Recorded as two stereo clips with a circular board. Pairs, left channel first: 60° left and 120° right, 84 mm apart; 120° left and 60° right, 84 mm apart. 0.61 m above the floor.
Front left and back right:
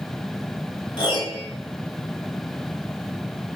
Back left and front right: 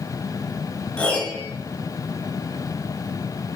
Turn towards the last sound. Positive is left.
turn(degrees=50)